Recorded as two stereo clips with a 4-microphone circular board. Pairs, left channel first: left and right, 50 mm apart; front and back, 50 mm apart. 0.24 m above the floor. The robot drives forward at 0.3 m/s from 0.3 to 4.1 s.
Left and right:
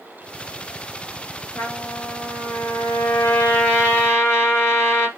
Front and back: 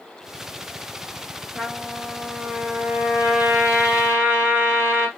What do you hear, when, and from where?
1.6 s a trumpet: 100° left, 1.3 m; by 5.1 s 125° left, 1.6 m